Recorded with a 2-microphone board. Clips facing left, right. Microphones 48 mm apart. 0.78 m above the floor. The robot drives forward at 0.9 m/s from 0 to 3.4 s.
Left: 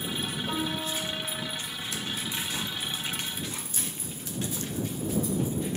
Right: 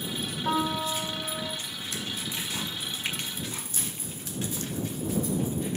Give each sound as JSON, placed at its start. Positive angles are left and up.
{"t": 0.5, "sound": "a piano", "side_deg": -85, "distance_m": 4.5}
{"t": 3.0, "sound": "a finger snap", "side_deg": -85, "distance_m": 2.0}